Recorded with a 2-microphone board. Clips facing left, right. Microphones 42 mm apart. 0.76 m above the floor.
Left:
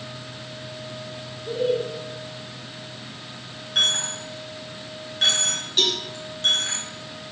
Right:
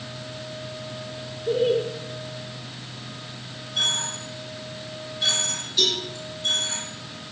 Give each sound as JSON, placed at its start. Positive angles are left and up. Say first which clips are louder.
{"t": 1.5, "sound": "laughter", "louder": "right 2 dB", "side_deg": -55, "distance_m": 1.6}
{"t": 3.8, "sound": "a dropped coin", "louder": "left 3 dB", "side_deg": 70, "distance_m": 3.5}
{"t": 5.8, "sound": "a cowbell", "louder": "left 1 dB", "side_deg": 60, "distance_m": 3.5}